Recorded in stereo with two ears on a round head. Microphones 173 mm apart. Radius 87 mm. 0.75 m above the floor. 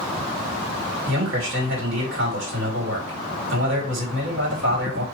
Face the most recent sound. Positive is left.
turn(degrees=-70)  # may be behind; listen again after turning